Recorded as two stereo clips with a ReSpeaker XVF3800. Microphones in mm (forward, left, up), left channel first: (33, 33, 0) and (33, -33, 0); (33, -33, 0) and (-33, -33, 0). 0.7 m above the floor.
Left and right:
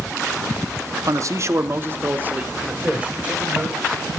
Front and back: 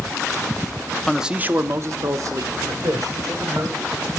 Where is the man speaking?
85° right, 0.7 m; by 4.0 s 165° right, 3.5 m.